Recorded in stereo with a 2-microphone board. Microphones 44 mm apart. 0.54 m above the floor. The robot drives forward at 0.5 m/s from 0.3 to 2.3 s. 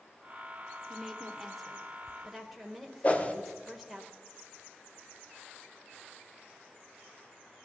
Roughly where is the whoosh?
Left.